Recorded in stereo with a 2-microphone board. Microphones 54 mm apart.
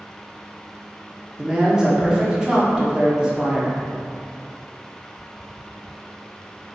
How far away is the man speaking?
About 0.9 m.